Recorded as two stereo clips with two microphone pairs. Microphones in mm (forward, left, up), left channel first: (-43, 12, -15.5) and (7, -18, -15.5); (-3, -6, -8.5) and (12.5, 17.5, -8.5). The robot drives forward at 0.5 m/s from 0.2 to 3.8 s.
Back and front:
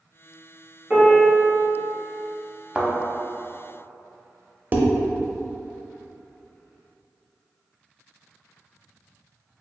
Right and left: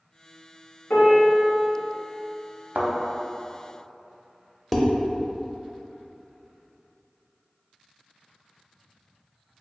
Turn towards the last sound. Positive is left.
turn(degrees=-40)